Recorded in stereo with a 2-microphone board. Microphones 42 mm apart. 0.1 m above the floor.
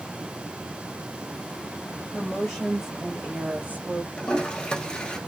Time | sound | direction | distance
2.1 | a woman speaking | 5° left (ahead or behind) | 1.6 m
4.2 | a toilet flushing | 20° left (ahead or behind) | 0.7 m